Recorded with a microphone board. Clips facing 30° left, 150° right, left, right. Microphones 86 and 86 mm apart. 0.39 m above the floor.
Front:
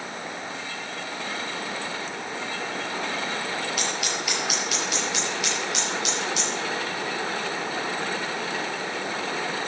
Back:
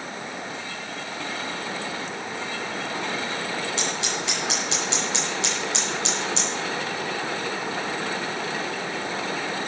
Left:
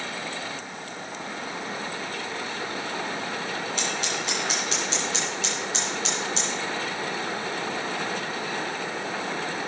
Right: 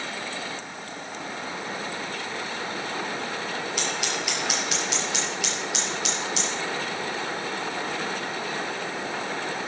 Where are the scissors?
150° left, 7 m.